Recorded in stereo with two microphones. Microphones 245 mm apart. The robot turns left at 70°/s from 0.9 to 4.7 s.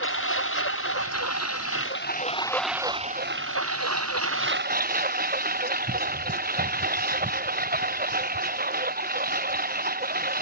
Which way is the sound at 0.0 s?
125° left.